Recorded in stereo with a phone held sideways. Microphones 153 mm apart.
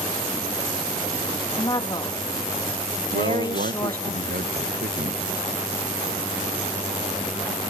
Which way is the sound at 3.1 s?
75° right (ahead or behind).